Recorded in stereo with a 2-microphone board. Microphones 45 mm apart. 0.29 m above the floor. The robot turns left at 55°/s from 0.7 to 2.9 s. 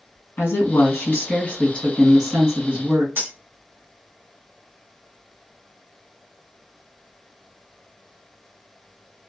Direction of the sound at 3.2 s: 60° right (ahead or behind).